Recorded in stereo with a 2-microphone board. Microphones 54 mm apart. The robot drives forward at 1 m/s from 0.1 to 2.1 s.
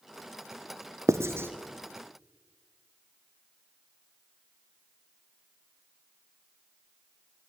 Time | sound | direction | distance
1.1 | writing | 65° right (ahead or behind) | 0.6 m